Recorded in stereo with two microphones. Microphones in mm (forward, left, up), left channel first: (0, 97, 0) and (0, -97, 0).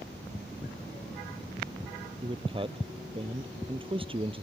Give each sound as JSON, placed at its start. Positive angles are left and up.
{"t": 2.2, "sound": "a man speaking", "side_deg": -25}